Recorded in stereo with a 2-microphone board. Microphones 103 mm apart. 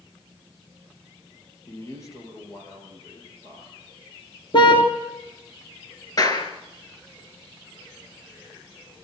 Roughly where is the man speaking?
Left.